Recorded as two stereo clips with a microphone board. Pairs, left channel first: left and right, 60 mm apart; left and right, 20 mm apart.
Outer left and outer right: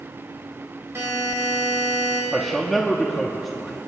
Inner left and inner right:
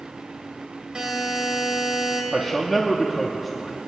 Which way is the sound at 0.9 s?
40° right (ahead or behind).